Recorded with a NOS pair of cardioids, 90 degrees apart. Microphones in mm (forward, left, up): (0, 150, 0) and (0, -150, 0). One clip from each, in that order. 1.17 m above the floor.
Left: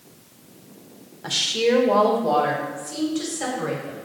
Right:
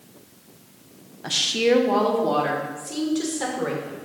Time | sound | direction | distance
1.2 | a woman speaking | 5° right | 0.8 m